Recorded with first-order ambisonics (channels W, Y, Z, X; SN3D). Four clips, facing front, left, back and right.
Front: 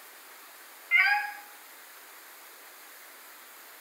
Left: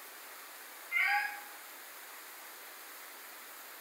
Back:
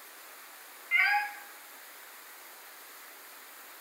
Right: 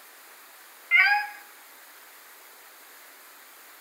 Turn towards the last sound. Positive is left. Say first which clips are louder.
# right 11 dB, front 3 dB
turn(degrees=-80)